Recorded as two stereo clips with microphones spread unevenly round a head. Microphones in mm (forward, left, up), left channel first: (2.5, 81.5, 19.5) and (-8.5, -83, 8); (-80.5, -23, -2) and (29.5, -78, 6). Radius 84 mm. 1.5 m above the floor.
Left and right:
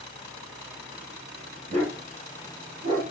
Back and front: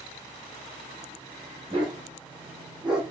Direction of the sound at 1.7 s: 50° right.